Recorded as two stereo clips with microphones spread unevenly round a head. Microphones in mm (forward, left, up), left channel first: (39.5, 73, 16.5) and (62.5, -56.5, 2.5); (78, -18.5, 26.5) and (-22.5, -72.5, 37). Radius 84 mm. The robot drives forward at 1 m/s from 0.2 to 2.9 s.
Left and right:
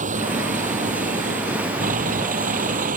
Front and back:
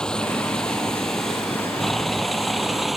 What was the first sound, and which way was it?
A vehicle, 55° right.